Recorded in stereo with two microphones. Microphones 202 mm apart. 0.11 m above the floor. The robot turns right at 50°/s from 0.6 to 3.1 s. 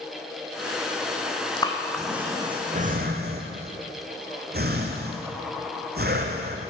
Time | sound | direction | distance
1.6 | breathing | 25° left (ahead or behind) | 1.4 m